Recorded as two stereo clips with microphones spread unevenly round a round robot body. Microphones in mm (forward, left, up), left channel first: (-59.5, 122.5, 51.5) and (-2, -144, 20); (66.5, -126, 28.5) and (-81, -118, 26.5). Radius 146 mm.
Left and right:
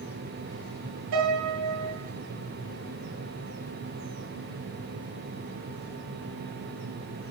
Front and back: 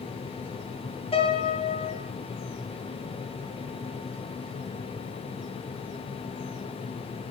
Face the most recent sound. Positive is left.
turn(degrees=-55)